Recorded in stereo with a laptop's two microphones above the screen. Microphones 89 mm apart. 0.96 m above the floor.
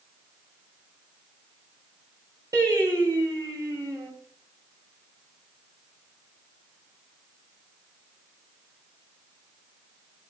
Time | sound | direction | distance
2.5 | singing | 40° right (ahead or behind) | 4.5 m